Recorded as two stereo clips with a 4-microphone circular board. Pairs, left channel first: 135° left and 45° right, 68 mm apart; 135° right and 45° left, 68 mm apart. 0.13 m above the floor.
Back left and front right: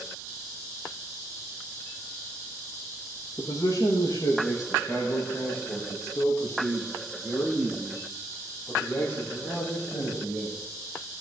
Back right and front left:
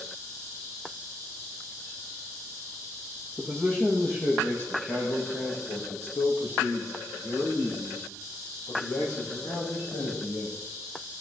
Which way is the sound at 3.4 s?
155° left.